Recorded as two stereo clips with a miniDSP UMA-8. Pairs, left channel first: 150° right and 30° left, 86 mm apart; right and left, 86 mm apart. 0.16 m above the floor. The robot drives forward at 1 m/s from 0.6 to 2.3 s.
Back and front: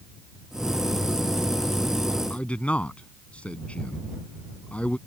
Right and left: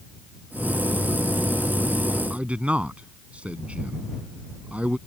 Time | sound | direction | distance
2.3 | a man speaking | 150° left | ?